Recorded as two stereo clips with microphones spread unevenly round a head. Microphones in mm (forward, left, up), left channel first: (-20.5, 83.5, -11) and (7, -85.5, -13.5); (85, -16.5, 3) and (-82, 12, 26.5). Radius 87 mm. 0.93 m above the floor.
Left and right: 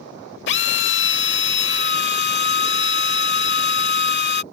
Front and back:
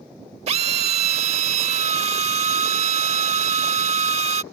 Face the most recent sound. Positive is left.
turn(degrees=120)